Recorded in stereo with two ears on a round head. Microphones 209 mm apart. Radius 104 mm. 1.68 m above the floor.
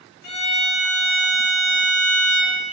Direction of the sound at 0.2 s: 85° left.